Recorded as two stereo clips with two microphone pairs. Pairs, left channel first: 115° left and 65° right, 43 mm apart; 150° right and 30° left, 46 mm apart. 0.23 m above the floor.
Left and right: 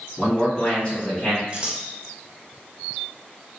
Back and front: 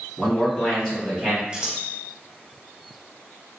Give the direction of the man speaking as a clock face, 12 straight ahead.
6 o'clock.